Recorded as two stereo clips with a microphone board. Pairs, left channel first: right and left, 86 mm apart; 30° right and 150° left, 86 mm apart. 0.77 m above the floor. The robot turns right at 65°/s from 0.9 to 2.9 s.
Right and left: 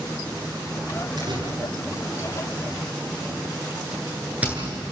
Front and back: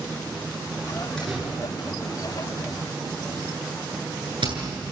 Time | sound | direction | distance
1.2 | a door slam | 50° left | 9 m